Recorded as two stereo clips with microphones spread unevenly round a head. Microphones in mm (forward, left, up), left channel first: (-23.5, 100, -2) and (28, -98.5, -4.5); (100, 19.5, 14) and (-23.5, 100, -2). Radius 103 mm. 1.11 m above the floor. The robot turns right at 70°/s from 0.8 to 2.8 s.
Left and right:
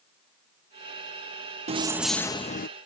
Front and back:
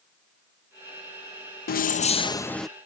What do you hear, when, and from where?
1.7 s keys jangling: 15° right; by 2.7 s 55° left